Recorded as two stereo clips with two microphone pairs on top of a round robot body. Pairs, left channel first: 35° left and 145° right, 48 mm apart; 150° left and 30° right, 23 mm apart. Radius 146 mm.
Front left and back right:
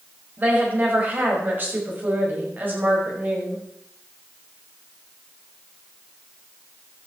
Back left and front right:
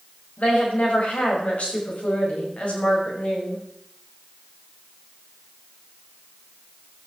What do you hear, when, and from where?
0.4 s a woman speaking: 165° left, 6.5 m